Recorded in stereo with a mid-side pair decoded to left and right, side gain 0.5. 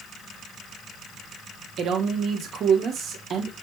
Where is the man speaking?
60° right, 1.1 m.